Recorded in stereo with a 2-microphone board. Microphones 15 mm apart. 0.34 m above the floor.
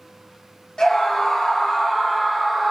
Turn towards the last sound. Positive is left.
turn(degrees=-5)  # may be behind; listen again after turning